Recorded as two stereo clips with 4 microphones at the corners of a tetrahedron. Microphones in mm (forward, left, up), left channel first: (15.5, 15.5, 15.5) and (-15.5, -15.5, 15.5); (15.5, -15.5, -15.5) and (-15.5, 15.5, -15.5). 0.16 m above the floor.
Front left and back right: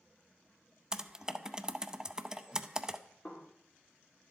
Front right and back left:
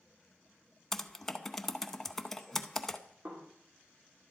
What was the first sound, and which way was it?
Typing on a keyboard, 105° right.